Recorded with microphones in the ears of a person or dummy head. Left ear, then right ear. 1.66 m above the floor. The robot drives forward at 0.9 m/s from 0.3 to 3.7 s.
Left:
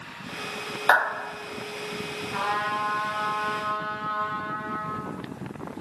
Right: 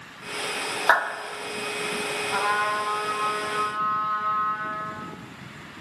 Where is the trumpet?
35° right (ahead or behind), 1.2 m; by 5.0 s 15° right (ahead or behind), 2.5 m.